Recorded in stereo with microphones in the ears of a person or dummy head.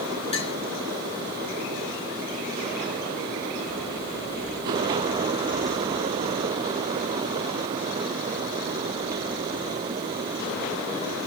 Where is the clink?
30° left (ahead or behind), 1.9 m.